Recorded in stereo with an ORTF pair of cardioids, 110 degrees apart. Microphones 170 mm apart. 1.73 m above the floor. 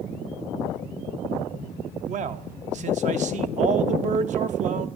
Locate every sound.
2.1 s a man speaking: 50° right, 0.8 m